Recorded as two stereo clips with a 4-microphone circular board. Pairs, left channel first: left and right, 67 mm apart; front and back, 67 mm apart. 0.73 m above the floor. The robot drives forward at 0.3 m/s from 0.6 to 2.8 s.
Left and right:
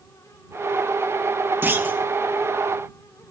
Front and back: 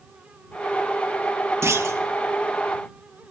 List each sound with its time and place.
1.6 s a clunk: 140° right, 0.8 m; by 2.0 s 145° right, 0.9 m